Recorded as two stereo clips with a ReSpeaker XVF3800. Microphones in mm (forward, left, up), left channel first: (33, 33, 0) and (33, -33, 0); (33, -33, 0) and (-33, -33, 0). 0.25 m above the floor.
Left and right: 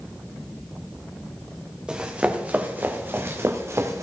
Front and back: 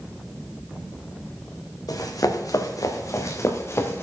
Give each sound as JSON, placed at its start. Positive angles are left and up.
{"t": 1.9, "sound": "running footsteps", "azimuth_deg": -15, "distance_m": 2.5}